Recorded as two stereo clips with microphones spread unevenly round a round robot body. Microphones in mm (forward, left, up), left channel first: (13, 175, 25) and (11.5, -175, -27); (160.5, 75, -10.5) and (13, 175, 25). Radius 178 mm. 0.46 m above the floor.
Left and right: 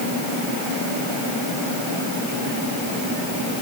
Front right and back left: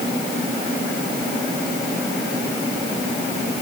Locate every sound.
Only background noise.